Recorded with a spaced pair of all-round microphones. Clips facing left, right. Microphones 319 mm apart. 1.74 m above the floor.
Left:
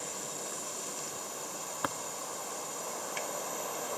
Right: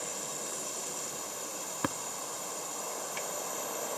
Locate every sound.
1.8 s tapping: 35° right (ahead or behind), 0.6 m